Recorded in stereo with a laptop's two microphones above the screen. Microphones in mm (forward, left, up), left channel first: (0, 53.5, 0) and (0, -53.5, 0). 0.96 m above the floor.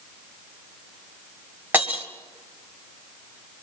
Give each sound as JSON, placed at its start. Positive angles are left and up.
{"t": 1.7, "sound": "breaking glass", "side_deg": -20, "distance_m": 1.2}